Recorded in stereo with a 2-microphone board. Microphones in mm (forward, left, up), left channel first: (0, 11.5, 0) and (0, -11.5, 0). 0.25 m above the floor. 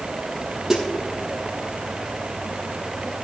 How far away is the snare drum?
About 4 m.